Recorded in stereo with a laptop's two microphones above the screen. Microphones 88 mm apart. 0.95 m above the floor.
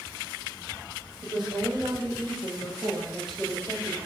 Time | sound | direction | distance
1.2 | a woman speaking | 60° right (ahead or behind) | 1.6 m